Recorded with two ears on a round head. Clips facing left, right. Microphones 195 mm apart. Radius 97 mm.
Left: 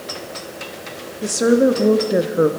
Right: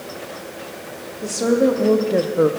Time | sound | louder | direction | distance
1.2 | a woman speaking | left 2 dB | 20° left (ahead or behind) | 1.2 m